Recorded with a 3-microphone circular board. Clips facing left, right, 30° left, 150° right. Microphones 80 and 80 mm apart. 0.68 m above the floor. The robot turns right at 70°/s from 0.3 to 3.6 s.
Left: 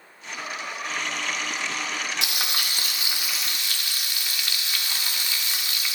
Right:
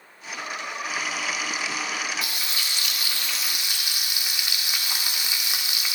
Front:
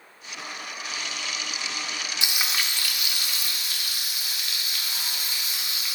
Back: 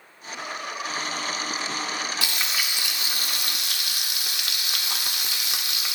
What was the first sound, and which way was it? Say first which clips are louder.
Frying: left 2 dB, even; 100° left.